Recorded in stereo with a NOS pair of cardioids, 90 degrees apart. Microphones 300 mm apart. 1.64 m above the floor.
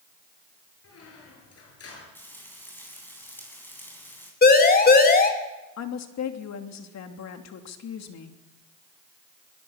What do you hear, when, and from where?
0.8 s a squeak: 50° left, 8.5 m
2.1 s frying: 5° left, 9.5 m
4.4 s a siren: 30° left, 3.5 m
5.8 s a woman speaking: 60° left, 3 m